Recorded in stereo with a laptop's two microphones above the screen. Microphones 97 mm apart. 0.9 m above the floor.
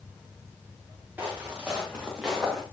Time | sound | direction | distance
1.2 | footsteps | 15° right (ahead or behind) | 5 m